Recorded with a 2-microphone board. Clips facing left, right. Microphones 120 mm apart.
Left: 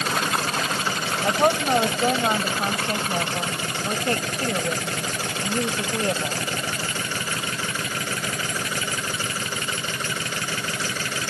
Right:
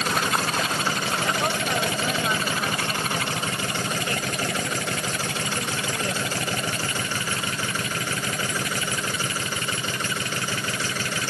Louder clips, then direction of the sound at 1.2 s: Left 9 dB; 45° left (ahead or behind).